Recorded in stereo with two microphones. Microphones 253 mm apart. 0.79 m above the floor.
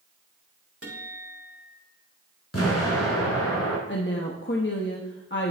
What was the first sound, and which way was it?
A guitar, 65° right (ahead or behind).